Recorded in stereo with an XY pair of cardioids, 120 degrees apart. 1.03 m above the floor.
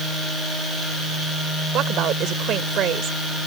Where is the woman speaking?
65° right.